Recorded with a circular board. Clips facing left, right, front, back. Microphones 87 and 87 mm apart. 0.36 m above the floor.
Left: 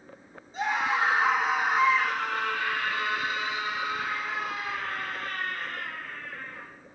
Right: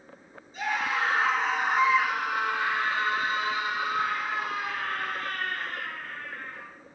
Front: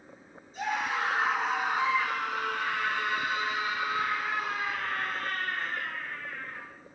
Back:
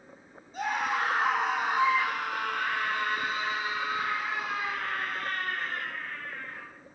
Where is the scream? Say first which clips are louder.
Left 2 dB, back 1 dB; 150° left, 3 m; by 6.7 s 95° right, 5 m.